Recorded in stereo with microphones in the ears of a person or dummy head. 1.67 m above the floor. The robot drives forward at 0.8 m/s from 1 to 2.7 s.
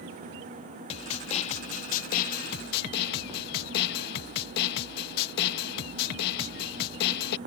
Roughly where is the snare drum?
Left.